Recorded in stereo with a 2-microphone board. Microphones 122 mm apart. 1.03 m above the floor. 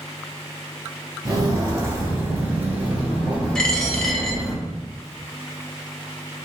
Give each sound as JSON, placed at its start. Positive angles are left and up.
{"t": 1.2, "sound": "footsteps", "side_deg": -30, "distance_m": 1.1}
{"t": 3.5, "sound": "a dropped coin", "side_deg": 10, "distance_m": 0.7}